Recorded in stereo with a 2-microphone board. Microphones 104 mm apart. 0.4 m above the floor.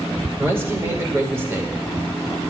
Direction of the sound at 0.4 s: 25° right (ahead or behind).